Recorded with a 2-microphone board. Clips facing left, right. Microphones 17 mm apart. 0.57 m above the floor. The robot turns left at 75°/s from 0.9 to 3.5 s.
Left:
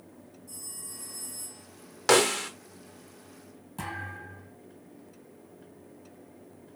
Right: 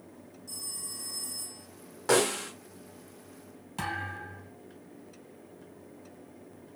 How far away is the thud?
About 2.5 m.